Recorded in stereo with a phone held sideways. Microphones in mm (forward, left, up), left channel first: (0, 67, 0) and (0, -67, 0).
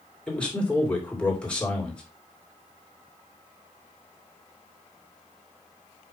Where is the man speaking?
10° left (ahead or behind), 2.5 m.